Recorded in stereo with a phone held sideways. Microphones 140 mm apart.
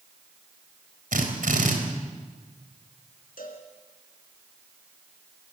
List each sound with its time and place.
1.1 s a drill: 70° right (ahead or behind), 4 m
3.4 s a cowbell: 80° left, 4 m